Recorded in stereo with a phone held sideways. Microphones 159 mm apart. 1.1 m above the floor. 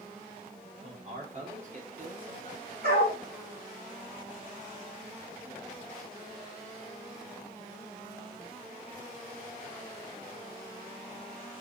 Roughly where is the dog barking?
Right.